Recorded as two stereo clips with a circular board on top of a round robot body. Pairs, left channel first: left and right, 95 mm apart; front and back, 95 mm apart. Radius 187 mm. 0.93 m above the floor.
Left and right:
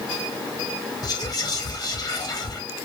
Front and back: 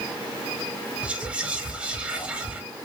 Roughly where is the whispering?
Left.